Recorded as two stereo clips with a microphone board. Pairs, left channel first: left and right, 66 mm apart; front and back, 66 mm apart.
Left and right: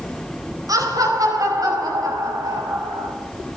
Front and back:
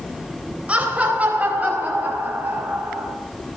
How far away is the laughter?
About 4 m.